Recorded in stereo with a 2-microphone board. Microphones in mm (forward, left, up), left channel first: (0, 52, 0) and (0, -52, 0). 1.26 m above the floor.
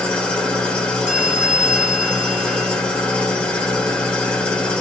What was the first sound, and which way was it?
An engine running, 10° left (ahead or behind).